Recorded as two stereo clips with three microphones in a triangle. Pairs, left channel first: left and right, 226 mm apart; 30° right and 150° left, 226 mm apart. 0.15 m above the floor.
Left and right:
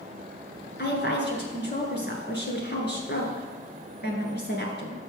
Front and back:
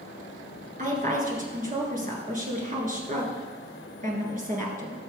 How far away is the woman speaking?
About 2.5 m.